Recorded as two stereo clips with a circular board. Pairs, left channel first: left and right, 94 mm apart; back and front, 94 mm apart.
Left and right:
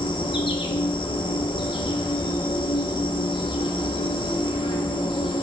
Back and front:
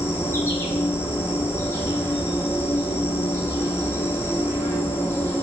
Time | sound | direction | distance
0.0 | an insect | 115° left | 1.0 m